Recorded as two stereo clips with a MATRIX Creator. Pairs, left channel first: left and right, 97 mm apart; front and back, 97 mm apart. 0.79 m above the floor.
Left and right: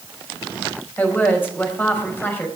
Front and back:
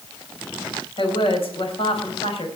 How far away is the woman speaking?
About 4.5 m.